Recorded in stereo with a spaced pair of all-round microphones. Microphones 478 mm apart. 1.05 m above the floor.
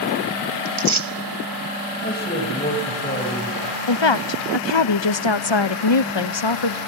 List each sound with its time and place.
0.7 s tearing paper: 80° right, 1.4 m
2.0 s a man speaking: 20° left (ahead or behind), 6 m
3.9 s a woman speaking: 65° left (ahead or behind), 0.8 m